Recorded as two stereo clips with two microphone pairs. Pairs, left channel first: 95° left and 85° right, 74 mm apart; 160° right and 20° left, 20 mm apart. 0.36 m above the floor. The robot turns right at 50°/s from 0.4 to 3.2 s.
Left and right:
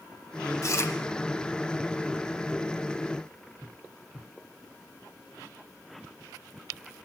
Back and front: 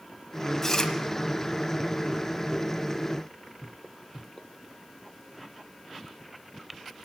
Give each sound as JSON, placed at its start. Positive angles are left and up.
{"t": 0.6, "sound": "chewing", "azimuth_deg": 130, "distance_m": 0.9}